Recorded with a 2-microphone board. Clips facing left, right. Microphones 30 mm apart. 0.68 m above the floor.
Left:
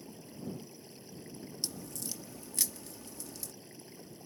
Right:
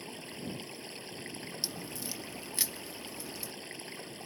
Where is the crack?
30° right (ahead or behind).